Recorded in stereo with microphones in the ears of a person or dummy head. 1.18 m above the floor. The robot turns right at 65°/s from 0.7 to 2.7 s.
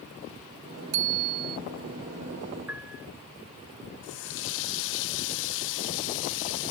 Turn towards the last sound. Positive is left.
turn(degrees=70)  # may be behind; listen again after turning